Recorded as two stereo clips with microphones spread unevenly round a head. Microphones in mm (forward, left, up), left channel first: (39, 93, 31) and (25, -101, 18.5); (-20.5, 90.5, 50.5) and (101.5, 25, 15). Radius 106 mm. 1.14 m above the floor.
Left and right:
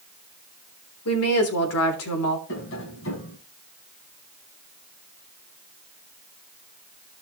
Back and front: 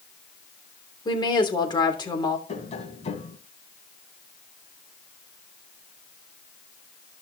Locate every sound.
1.1 s a woman speaking: 95° left, 3 m
2.5 s tapping: 120° left, 3 m